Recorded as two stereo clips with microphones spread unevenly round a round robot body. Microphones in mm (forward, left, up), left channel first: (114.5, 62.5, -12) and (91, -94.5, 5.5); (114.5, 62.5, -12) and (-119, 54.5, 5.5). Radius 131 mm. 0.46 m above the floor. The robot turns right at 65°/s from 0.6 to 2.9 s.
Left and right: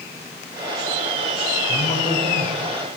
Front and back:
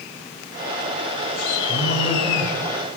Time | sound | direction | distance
1.7 | a man speaking | 25° left | 2.5 m